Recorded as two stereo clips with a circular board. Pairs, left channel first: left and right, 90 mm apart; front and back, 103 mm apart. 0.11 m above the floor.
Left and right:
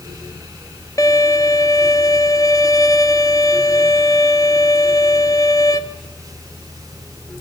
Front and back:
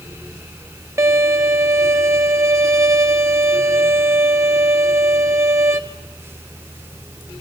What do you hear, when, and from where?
1.0 s a violin: 125° left, 1.4 m